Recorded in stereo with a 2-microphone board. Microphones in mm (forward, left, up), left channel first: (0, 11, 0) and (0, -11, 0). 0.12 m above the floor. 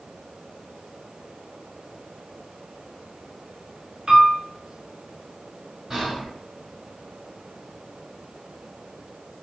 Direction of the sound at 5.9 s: 10° right (ahead or behind).